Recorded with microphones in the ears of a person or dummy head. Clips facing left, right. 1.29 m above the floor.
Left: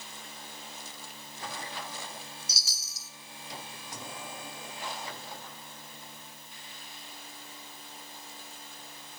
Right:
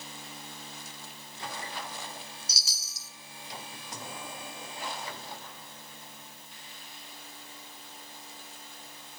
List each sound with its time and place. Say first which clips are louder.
2.5 s a chime: even; 70° right (ahead or behind), 2 m